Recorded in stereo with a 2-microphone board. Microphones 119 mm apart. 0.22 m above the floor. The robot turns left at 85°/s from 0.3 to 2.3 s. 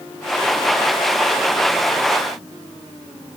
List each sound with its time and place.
Only background noise.